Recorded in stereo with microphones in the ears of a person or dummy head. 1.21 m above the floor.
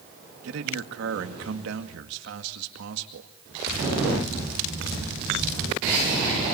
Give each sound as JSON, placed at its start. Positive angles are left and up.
{"t": 0.4, "sound": "a man speaking", "side_deg": -75, "distance_m": 2.0}